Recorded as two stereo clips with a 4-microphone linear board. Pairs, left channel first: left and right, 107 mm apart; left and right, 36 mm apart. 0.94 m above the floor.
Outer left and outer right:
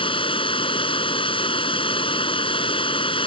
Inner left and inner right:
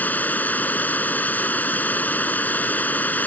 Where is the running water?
55° left (ahead or behind).